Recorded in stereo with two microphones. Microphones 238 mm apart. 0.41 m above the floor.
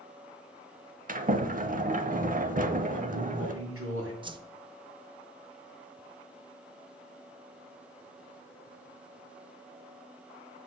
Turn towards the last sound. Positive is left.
turn(degrees=-20)  # may be behind; listen again after turning